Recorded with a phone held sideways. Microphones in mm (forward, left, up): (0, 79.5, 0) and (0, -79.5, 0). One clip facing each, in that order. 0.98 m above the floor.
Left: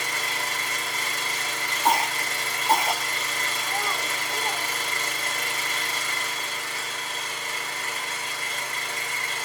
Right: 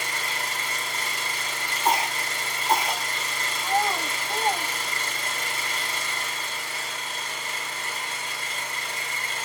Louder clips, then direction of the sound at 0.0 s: Left 1 dB; 40° left (ahead or behind).